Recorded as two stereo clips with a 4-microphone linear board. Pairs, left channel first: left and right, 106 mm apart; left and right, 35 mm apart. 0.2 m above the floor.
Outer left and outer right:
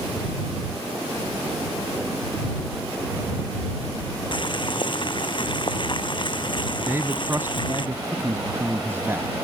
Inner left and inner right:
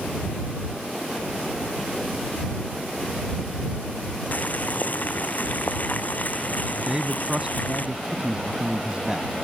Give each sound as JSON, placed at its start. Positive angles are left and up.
{"t": 4.3, "sound": "boiling", "side_deg": 50}
{"t": 6.9, "sound": "a man speaking", "side_deg": -20}